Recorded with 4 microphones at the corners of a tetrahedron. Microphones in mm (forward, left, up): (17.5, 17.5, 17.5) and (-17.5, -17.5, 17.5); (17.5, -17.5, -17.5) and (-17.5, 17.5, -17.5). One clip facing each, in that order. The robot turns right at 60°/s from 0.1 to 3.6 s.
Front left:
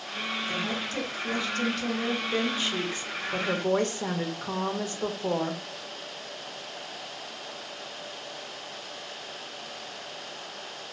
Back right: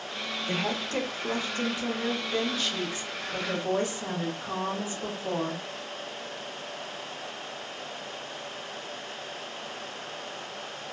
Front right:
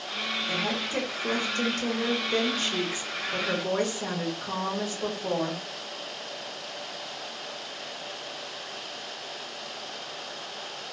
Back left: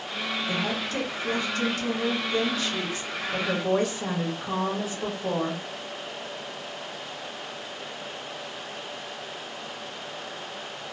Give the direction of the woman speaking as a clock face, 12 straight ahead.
5 o'clock.